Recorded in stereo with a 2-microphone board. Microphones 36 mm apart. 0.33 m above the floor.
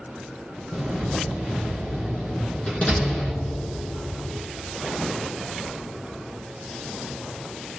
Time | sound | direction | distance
0.7 | a door slam | 35° left (ahead or behind) | 3 m